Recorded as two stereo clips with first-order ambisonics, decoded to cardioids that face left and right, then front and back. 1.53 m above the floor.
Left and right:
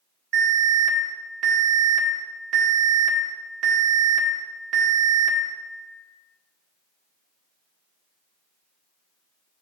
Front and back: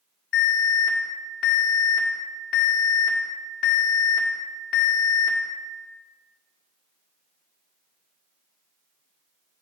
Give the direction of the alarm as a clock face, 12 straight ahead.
1 o'clock.